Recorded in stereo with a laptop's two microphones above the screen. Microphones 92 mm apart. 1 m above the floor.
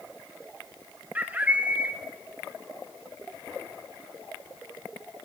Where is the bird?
15° right (ahead or behind), 1.3 m.